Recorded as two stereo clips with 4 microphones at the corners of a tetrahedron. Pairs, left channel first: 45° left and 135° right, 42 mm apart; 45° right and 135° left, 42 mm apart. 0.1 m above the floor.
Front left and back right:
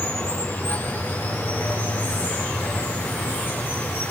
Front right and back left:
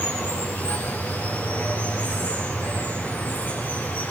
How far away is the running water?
About 7.5 m.